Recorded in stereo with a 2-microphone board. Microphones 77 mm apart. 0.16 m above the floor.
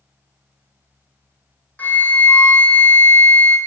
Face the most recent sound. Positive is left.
turn(degrees=25)  # may be behind; listen again after turning